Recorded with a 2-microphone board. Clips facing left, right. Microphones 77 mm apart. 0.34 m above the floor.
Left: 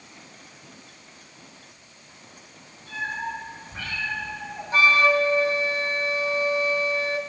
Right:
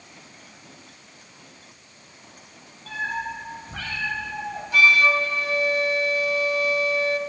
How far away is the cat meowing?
About 5 m.